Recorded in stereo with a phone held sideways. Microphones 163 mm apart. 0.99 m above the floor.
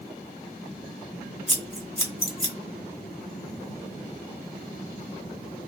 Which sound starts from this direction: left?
Scissors, at 1.5 s.